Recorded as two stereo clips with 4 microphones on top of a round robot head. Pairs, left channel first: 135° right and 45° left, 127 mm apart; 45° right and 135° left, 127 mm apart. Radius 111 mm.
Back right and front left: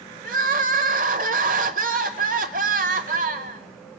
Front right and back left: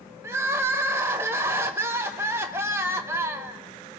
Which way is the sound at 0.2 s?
60° left.